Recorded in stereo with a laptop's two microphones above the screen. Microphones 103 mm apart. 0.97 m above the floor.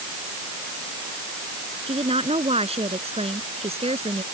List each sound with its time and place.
1.9 s a woman speaking: 75° right (ahead or behind)